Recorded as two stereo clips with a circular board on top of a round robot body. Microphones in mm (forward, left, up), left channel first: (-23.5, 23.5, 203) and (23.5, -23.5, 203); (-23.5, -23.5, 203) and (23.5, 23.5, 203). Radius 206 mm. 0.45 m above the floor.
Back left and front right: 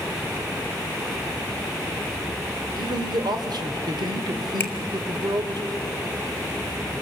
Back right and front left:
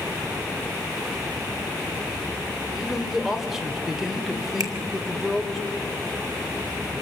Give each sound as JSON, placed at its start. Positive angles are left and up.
{"t": 2.7, "sound": "a man speaking", "azimuth_deg": -40, "distance_m": 2.5}
{"t": 4.6, "sound": "a finger snap", "azimuth_deg": 75, "distance_m": 2.5}